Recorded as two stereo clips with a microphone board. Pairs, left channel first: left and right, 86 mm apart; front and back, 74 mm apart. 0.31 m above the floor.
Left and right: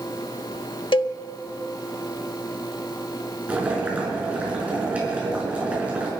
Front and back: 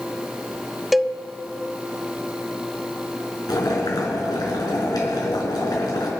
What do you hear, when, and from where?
0.9 s a cowbell: 90° left, 0.5 m
3.5 s boiling: 15° right, 4.5 m